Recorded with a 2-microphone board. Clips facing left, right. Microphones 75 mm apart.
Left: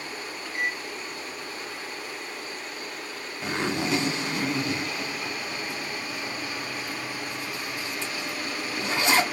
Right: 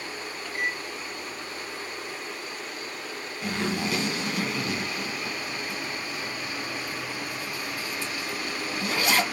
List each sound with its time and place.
0.5 s a microwave: 10° left (ahead or behind), 1.8 m
3.4 s a zipper: 25° left (ahead or behind), 1.3 m